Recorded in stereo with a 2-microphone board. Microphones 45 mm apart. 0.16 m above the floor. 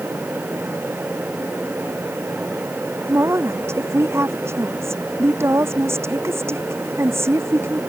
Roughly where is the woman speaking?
Right.